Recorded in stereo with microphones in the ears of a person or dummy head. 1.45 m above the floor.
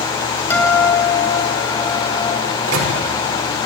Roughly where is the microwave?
Right.